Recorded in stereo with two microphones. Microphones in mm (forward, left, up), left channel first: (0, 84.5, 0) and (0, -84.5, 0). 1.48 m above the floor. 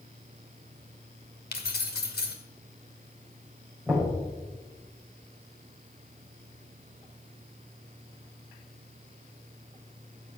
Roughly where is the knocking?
Centre.